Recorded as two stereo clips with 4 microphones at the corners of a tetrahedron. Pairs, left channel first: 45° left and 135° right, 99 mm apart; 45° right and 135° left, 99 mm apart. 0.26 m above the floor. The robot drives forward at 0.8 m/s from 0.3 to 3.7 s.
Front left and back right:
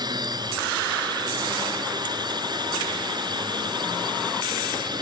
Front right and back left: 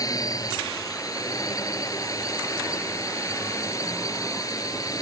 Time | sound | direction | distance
0.0 | a drone | 95° right | ?